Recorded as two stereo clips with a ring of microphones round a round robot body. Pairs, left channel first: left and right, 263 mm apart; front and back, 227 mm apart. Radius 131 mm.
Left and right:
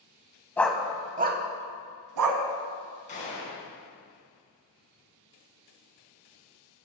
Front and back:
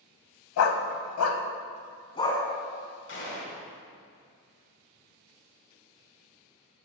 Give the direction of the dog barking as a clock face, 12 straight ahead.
12 o'clock.